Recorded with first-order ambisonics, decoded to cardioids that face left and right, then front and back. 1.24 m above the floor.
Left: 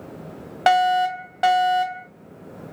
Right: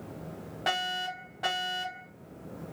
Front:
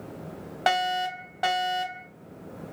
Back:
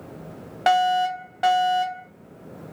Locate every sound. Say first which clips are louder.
0.7 s a fire alarm: left 14 dB, back 6 dB; 95° left, 1.0 m